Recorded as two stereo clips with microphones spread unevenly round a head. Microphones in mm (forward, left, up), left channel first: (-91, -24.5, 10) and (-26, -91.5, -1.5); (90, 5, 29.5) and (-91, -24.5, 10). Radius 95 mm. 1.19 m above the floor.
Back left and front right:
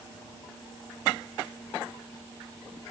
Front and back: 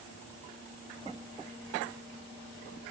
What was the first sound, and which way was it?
Only background noise.